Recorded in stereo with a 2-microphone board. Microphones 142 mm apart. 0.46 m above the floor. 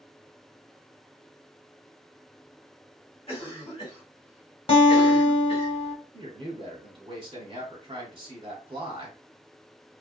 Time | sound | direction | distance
3.3 | a cough | 40° left (ahead or behind) | 1.5 m
4.7 | a guitar | 40° left (ahead or behind) | 0.9 m
6.1 | a man speaking | 35° right (ahead or behind) | 1.1 m